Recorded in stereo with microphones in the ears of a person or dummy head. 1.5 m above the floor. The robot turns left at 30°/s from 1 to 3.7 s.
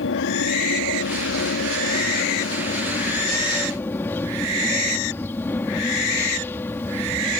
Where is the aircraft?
90° left; by 7.4 s 10° left.